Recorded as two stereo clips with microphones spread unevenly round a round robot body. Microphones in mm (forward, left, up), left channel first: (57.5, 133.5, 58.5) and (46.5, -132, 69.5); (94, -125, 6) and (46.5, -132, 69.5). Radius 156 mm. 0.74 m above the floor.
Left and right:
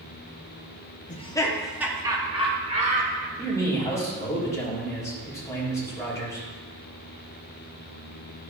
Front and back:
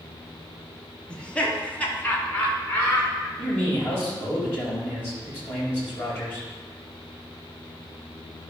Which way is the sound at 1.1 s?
30° left.